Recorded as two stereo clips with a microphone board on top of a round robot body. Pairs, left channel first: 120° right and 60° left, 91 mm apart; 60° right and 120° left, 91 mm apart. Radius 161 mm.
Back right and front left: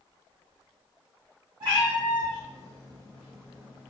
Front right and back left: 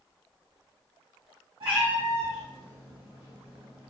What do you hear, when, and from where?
1.6 s a cat meowing: 100° left, 1.6 m; by 3.9 s 145° left, 0.7 m